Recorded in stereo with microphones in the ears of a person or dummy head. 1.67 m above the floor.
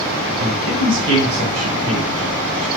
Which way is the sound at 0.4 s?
65° right (ahead or behind).